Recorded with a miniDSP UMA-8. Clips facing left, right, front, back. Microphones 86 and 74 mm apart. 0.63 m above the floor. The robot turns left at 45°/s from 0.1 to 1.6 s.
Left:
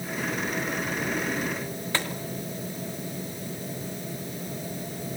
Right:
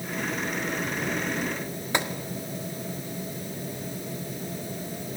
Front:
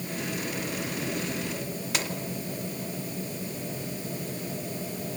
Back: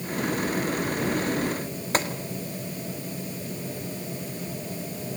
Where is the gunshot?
155° right, 1.5 m.